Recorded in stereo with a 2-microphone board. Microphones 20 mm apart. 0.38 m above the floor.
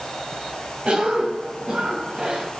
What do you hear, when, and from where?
0.8 s a cough: 50° right (ahead or behind), 2.5 m